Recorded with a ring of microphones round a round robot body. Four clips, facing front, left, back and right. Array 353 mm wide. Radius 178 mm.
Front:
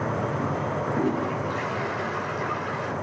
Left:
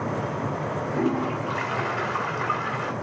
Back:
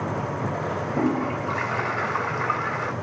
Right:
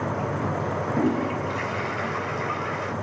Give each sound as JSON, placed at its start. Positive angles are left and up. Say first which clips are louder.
{"t": 0.9, "sound": "a toilet flushing", "louder": "right 1 dB, back 3 dB", "azimuth_deg": 150, "distance_m": 2.0}